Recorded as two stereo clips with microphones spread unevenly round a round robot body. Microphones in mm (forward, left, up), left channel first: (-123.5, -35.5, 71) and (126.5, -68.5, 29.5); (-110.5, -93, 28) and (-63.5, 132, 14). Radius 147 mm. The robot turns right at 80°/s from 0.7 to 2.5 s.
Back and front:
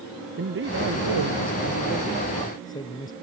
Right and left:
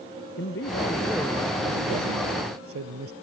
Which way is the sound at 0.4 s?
50° right.